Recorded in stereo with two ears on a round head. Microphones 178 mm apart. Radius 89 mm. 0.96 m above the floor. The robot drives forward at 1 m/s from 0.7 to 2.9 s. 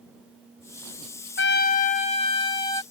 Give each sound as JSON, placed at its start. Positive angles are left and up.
{"t": 1.4, "sound": "a trumpet", "side_deg": 60}